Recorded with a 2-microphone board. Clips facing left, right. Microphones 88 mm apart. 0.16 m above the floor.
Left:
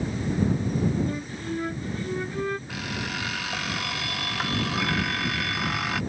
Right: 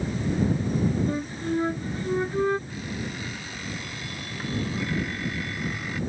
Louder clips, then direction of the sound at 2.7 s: Left 1 dB; 85° left.